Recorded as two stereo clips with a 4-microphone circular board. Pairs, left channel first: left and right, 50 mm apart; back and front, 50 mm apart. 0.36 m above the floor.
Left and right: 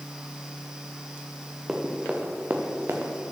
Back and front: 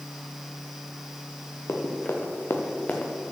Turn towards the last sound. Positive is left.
turn(degrees=-115)